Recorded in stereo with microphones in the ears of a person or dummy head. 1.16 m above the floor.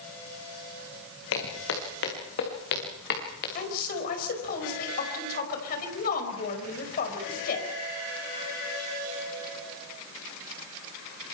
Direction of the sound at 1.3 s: 75° left (ahead or behind).